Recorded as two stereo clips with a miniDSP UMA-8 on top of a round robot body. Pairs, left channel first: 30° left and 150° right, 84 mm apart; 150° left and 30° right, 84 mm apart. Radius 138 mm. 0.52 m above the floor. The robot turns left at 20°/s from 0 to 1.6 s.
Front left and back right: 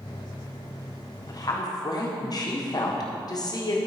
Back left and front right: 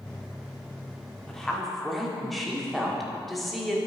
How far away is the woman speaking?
About 1.8 m.